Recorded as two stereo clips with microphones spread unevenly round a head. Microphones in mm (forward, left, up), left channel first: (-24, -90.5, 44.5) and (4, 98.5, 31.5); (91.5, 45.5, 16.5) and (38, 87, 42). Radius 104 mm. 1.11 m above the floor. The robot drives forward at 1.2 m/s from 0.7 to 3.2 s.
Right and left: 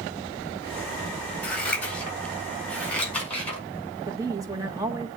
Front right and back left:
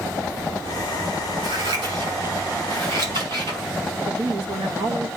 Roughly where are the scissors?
Behind.